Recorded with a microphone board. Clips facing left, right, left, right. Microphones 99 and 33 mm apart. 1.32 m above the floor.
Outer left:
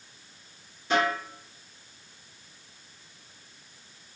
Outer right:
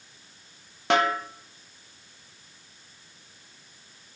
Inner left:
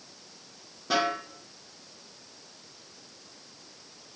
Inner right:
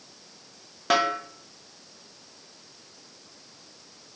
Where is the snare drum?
90° right, 1.2 m.